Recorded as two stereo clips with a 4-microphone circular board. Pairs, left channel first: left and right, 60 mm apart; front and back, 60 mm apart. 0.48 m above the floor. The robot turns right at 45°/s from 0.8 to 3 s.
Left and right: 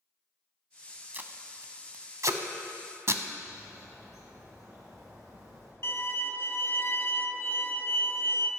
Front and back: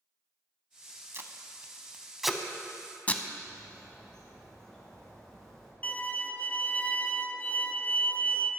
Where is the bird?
80° right, 3 m.